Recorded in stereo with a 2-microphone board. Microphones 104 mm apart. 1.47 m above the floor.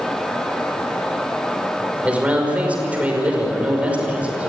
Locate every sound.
2.0 s a man speaking: 15° right (ahead or behind), 5 m